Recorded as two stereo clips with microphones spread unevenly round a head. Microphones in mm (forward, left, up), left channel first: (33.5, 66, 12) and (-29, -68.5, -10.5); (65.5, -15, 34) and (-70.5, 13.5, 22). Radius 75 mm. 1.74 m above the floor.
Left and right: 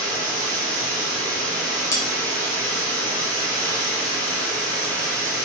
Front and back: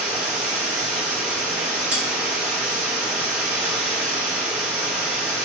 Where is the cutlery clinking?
90° left, 0.9 m.